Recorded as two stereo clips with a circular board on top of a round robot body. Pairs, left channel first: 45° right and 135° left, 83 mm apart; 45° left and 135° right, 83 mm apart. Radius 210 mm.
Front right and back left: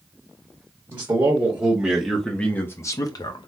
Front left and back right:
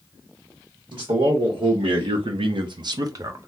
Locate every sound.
0.9 s a man speaking: 165° right, 1.1 m; by 3.5 s 75° right, 0.8 m